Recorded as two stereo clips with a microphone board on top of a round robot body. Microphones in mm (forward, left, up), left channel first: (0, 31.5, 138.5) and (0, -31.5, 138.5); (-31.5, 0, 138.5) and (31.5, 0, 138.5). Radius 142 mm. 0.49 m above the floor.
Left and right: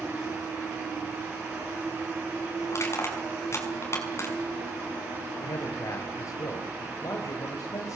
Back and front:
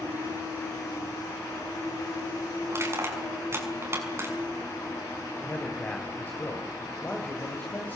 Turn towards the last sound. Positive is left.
turn(degrees=120)